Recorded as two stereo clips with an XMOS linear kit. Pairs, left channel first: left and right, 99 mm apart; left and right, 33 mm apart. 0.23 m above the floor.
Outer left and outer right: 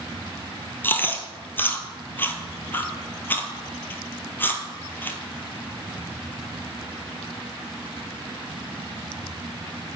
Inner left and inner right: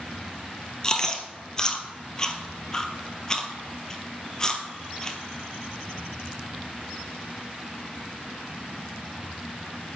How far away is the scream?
No scream in this recording.